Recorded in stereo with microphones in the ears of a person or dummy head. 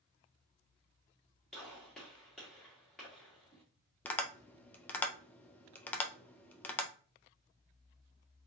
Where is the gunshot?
10° left (ahead or behind), 1.6 m.